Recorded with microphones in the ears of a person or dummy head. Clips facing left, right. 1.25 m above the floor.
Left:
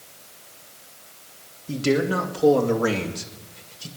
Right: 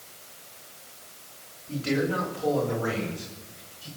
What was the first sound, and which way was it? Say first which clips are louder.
A man speaking: left 5 dB; 50° left (ahead or behind).